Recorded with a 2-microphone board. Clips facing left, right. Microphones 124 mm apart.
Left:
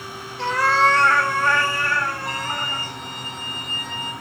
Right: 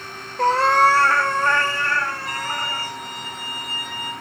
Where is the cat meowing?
45° right (ahead or behind), 0.7 m; by 2.9 s 15° left (ahead or behind), 4 m.